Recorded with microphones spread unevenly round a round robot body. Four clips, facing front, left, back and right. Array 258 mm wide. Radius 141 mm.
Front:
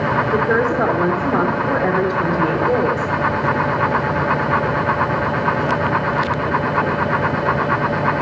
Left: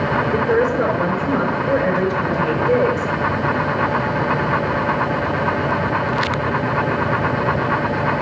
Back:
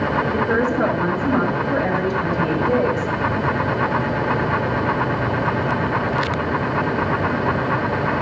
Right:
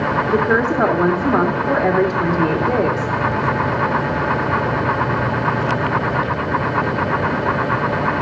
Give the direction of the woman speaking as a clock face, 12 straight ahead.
2 o'clock.